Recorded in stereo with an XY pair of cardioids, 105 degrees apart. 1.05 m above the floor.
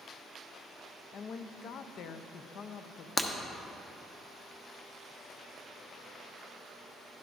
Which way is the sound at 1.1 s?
65° left.